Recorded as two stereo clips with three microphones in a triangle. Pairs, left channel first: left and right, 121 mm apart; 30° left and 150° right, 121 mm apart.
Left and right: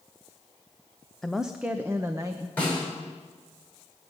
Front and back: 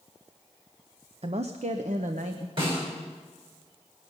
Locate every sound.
1.2 s a woman speaking: 175° left, 0.7 m; by 2.5 s 150° right, 1.1 m
2.6 s a snare drum: 165° left, 6 m